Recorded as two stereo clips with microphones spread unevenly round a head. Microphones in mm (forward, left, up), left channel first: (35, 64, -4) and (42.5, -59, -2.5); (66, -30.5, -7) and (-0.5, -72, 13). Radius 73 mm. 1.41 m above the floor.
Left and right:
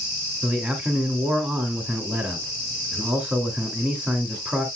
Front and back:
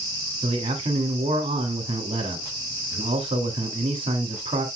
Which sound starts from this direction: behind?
A man speaking, at 0.4 s.